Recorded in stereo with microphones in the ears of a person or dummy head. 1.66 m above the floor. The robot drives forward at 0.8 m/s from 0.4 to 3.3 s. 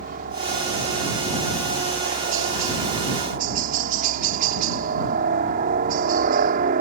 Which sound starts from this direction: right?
A helicopter, at 0.0 s.